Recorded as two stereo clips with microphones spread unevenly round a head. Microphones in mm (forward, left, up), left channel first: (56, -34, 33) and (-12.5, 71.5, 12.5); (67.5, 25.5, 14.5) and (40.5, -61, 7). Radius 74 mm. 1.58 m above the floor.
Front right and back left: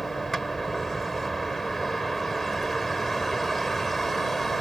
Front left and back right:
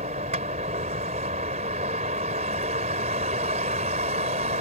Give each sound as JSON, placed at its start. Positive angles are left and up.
{"t": 0.0, "sound": "a vehicle", "azimuth_deg": -145}